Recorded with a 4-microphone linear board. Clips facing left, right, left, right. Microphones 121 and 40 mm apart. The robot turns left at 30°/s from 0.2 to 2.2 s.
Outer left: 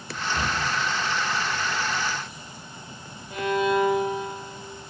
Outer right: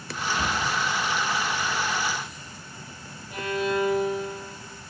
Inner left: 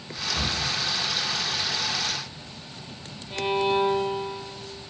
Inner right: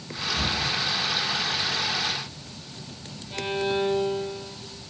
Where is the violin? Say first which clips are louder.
Outer left 4 dB, inner left 3 dB; 20° left (ahead or behind), 0.9 m.